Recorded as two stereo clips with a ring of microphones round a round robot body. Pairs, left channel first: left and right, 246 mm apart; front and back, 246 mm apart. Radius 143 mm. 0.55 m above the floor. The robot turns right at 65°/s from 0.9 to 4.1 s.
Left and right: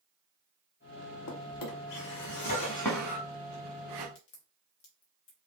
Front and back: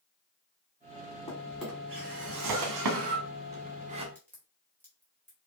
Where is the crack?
80° left, 1.9 m.